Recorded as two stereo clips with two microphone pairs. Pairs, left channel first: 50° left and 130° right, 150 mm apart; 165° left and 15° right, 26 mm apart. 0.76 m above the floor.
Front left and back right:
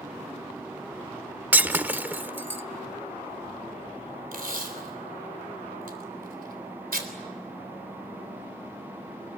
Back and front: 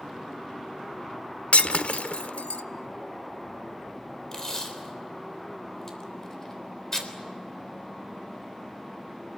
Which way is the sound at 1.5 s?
150° left.